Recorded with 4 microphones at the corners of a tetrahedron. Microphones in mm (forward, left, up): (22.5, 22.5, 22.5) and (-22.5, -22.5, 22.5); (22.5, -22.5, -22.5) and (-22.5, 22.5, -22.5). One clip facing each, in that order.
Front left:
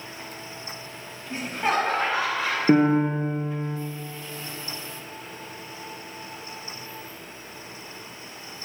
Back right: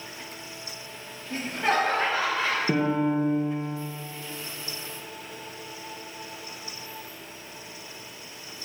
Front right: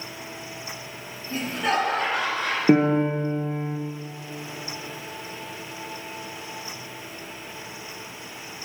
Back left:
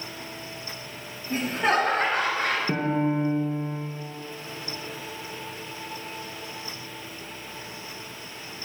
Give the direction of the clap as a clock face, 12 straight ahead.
I don't hear a clap.